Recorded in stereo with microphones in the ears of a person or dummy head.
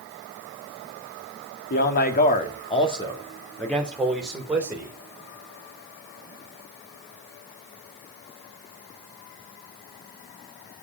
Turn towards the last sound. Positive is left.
turn(degrees=-10)  # may be behind; listen again after turning